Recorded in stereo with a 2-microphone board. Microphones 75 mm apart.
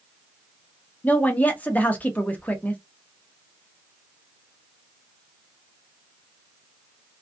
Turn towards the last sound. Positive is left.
turn(degrees=20)  # may be behind; listen again after turning